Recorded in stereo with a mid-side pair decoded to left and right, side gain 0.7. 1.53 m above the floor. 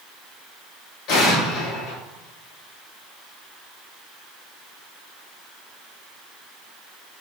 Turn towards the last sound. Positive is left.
turn(degrees=65)